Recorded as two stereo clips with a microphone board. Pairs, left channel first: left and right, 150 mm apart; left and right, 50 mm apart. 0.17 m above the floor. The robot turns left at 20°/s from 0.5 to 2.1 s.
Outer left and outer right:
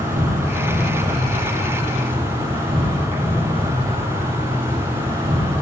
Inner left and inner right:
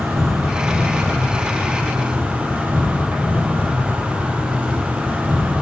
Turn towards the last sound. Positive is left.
turn(degrees=-140)